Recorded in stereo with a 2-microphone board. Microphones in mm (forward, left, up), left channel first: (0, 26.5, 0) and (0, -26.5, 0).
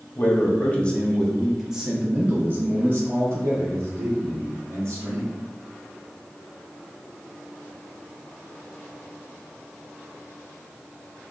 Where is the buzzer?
I don't hear a buzzer.